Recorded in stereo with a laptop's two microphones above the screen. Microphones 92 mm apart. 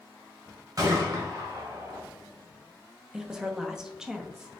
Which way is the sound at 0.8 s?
50° right (ahead or behind).